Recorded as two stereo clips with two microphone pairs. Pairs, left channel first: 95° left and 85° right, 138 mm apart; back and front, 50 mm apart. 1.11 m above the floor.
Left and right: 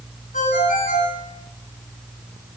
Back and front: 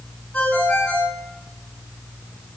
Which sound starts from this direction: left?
A ringtone, at 0.3 s.